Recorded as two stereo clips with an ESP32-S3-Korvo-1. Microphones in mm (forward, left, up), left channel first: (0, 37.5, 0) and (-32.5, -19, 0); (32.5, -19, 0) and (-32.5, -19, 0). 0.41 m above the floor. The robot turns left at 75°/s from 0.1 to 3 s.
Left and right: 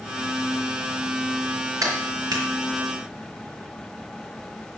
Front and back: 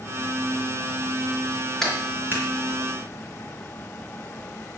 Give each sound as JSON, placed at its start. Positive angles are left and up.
{"t": 1.8, "sound": "a clap", "azimuth_deg": -85, "distance_m": 4.0}